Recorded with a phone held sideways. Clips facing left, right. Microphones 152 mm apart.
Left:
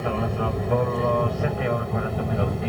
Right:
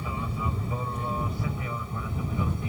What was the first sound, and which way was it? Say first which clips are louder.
An aircraft: left 8 dB; 75° left (ahead or behind).